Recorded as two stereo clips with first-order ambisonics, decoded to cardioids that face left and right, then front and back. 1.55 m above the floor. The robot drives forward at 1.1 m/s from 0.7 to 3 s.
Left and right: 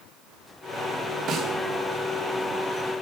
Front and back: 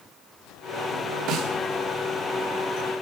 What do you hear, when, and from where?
1.3 s a snare drum: 145° right, 2.5 m; by 1.6 s 150° right, 2.5 m